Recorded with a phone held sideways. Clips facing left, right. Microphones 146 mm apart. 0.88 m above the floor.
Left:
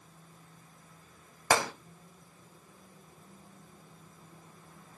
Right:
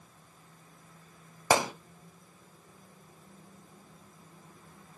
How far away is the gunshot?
About 0.9 m.